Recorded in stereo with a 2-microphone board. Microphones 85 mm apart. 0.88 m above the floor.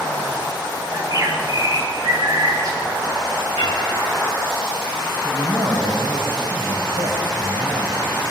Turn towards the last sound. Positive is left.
turn(degrees=-75)  # may be behind; listen again after turning